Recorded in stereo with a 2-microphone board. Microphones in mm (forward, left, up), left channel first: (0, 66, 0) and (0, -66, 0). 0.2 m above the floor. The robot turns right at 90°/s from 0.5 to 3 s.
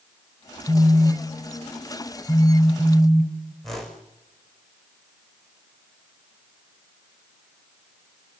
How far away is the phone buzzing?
About 1.4 m.